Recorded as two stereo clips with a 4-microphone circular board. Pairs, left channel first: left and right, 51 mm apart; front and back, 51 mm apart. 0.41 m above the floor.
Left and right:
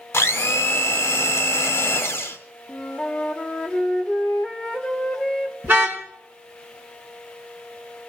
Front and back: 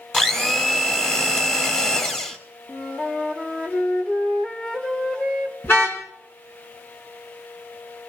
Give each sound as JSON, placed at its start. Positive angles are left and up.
{"t": 0.1, "sound": "a blender", "azimuth_deg": 70, "distance_m": 1.5}
{"t": 2.7, "sound": "a flute", "azimuth_deg": 35, "distance_m": 1.1}
{"t": 5.6, "sound": "a car horn", "azimuth_deg": -40, "distance_m": 3.0}